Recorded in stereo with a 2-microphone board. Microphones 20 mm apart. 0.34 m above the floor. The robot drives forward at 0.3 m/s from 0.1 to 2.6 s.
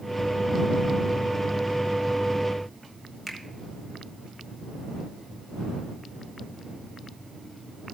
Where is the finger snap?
10° right (ahead or behind), 1.1 m.